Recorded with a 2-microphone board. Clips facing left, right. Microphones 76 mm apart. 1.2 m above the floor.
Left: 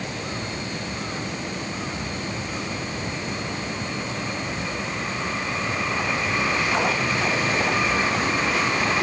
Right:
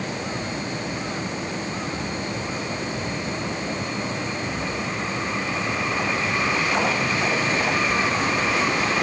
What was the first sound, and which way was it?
Only background noise.